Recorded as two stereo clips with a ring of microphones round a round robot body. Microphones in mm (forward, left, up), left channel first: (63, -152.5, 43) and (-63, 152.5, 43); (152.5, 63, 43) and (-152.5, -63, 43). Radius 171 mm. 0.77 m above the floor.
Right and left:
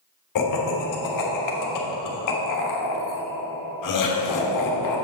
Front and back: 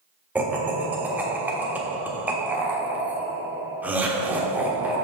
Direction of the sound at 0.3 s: 75° right.